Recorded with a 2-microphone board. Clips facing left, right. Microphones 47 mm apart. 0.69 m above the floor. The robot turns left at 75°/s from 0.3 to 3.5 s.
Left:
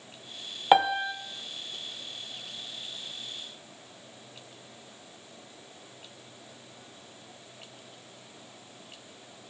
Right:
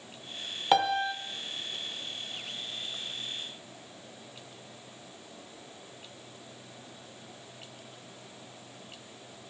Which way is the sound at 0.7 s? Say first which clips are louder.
Left 3 dB; 25° left.